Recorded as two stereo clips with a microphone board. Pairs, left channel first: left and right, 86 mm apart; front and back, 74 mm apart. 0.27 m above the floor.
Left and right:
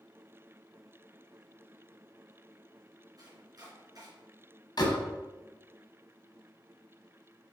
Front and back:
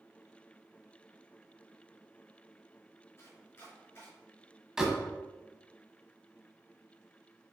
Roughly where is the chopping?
Ahead right.